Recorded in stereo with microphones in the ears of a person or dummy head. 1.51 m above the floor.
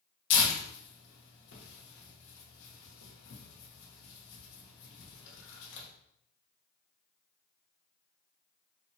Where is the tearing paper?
60° left (ahead or behind), 0.9 m.